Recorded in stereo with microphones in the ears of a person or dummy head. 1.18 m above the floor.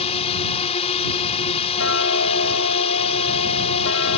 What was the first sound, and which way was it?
A drone, 30° left (ahead or behind).